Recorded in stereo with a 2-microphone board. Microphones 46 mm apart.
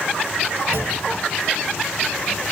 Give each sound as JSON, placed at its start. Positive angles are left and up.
{"t": 0.7, "sound": "a clunk", "side_deg": 70, "distance_m": 4.0}